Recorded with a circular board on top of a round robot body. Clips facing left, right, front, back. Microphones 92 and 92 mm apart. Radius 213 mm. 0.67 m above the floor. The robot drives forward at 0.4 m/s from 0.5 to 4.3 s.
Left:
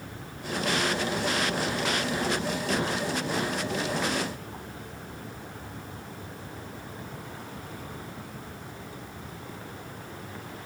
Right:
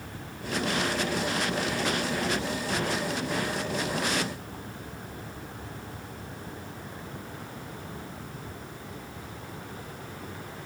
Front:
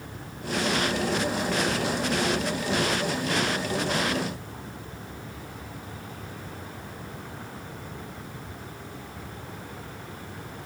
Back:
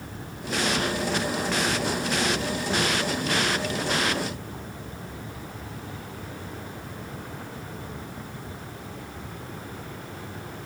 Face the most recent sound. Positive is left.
No sound to turn to.